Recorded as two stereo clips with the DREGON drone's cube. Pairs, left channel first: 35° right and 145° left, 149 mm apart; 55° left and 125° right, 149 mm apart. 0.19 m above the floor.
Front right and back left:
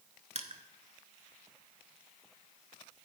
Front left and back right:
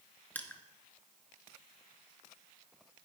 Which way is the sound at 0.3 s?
130° left.